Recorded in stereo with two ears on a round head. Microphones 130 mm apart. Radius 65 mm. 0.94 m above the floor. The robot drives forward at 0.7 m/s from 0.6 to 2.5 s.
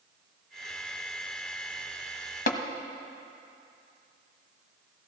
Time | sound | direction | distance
2.5 | tapping | 60° left (ahead or behind) | 1.0 m